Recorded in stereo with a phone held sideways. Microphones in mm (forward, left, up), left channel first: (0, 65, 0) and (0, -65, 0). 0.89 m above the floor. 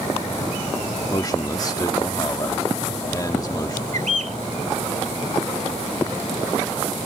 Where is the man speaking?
30° left (ahead or behind).